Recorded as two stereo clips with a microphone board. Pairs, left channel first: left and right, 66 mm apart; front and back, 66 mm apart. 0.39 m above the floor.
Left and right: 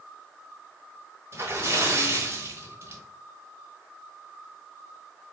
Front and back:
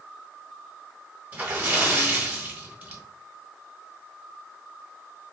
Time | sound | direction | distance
1.3 | a splash | 120° right | 1.1 m